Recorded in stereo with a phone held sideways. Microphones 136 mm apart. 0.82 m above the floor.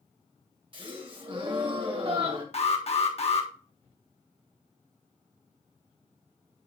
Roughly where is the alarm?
Left.